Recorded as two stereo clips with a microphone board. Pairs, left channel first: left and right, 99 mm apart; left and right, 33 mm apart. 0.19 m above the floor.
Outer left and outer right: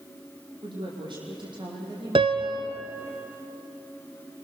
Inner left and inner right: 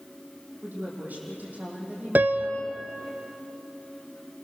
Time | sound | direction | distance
0.6 | a woman speaking | 55° right (ahead or behind) | 8.5 m
2.1 | a piano | 65° right (ahead or behind) | 1.1 m